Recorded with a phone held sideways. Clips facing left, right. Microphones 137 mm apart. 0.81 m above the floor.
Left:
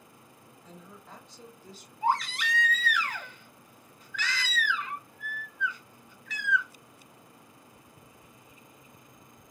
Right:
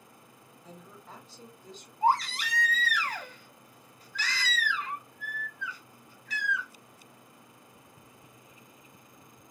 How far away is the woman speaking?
About 1.6 m.